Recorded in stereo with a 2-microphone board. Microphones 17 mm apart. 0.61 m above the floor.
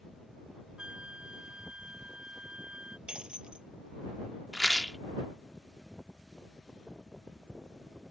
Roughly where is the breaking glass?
Right.